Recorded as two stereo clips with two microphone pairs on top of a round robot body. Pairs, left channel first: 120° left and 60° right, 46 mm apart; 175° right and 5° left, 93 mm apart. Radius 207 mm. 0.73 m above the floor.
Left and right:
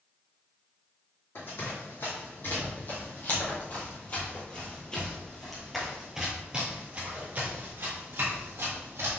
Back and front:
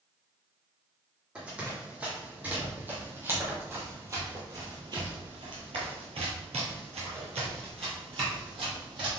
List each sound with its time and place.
1.4 s running footsteps: 85° left, 3 m; by 9.2 s 30° right, 2 m